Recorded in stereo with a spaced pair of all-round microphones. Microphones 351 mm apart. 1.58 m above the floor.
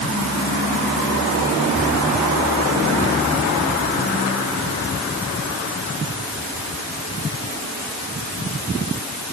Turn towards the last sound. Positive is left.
No sound to turn to.